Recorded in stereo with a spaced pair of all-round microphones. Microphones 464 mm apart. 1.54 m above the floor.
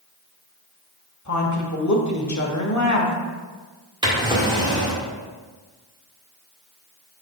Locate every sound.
1.2 s a woman speaking: 40° left (ahead or behind), 1.1 m
4.0 s a drawer: 10° right (ahead or behind), 1.4 m